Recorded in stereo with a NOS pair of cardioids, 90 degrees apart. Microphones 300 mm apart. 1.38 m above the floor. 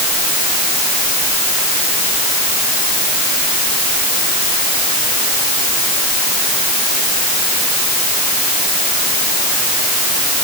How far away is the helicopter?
I don't hear a helicopter.